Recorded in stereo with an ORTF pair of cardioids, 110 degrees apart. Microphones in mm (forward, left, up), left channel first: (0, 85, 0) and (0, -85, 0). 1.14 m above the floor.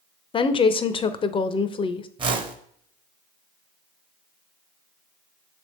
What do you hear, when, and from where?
0.3 s a woman speaking: 30° left, 0.7 m
2.2 s a whoosh: 30° right, 1.1 m